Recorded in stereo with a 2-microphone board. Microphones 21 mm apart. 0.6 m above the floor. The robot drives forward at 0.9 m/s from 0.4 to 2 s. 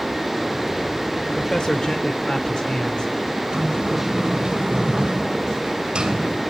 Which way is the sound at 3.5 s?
45° right (ahead or behind).